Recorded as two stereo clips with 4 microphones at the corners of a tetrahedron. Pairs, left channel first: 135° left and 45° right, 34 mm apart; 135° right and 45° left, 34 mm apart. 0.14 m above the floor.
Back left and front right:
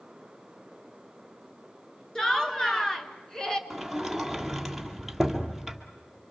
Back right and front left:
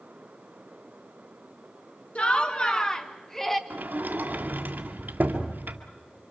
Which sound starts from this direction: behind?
Laughter, at 2.1 s.